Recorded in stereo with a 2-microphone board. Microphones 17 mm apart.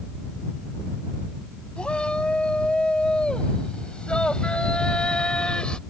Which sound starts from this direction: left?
A shout, at 1.8 s.